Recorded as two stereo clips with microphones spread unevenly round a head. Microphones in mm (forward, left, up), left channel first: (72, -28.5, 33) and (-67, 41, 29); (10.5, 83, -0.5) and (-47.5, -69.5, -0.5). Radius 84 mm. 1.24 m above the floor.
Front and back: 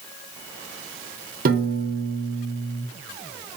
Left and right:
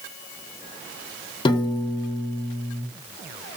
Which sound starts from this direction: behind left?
A piano, at 1.4 s.